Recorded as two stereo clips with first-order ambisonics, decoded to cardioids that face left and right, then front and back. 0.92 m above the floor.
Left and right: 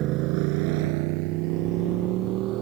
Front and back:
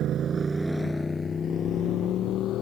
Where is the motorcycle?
130° right; by 2.6 s 50° right.